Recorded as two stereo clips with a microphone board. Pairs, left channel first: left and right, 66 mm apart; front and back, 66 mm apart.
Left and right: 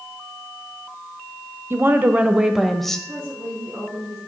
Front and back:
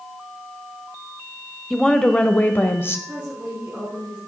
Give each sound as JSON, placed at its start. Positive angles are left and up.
{"t": 1.7, "sound": "a woman speaking", "azimuth_deg": -80, "distance_m": 1.0}
{"t": 3.1, "sound": "a woman speaking", "azimuth_deg": -115, "distance_m": 3.0}